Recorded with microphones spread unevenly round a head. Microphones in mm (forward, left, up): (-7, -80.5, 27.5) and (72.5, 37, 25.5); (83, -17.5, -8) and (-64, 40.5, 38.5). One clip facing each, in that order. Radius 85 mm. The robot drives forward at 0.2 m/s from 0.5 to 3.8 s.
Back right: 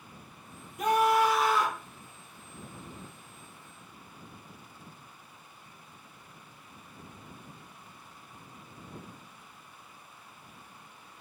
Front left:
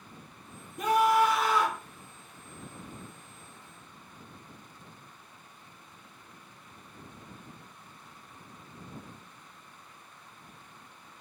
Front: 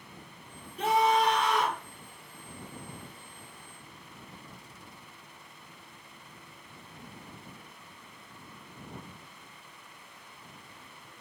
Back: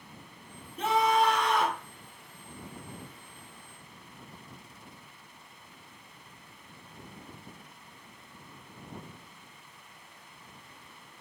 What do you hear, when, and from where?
0.8 s a scream: 110° left, 3 m; by 1.8 s 115° left, 3 m